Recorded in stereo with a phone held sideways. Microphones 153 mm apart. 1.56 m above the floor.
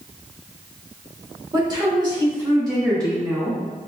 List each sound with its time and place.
1.5 s a woman speaking: 30° right (ahead or behind), 1.7 m; by 3.6 s 20° right (ahead or behind), 2.5 m